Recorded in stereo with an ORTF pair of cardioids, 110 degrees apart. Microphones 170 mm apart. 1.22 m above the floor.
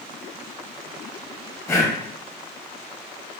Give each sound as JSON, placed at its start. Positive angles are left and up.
{"t": 1.7, "sound": "breathing", "azimuth_deg": 15, "distance_m": 0.6}